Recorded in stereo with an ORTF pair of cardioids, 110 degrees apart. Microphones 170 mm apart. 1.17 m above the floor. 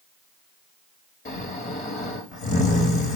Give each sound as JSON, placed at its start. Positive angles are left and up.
{"t": 1.2, "sound": "snoring", "azimuth_deg": 45, "distance_m": 5.0}